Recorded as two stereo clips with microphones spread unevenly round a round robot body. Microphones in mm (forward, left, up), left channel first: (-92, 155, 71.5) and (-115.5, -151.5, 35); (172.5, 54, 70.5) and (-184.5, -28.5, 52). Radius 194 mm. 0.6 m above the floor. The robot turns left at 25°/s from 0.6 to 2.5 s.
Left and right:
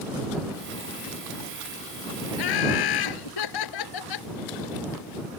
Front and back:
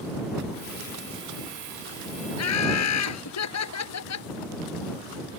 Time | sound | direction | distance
2.4 | laughter | 65° left | ?